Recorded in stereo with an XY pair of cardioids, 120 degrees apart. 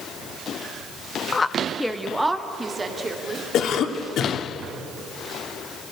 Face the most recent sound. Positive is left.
turn(degrees=60)